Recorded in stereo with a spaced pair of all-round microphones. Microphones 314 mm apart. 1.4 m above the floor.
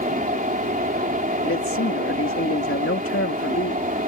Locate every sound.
0.0 s a fan: 25° right (ahead or behind)
1.4 s a man speaking: 45° left (ahead or behind)